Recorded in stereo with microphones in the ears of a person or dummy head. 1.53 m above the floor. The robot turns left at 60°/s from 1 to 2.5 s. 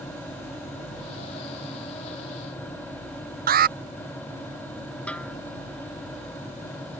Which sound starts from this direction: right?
An alarm, at 3.5 s.